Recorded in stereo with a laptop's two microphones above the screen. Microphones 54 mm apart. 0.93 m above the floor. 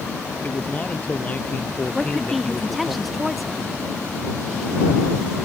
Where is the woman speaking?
Centre (ahead or behind).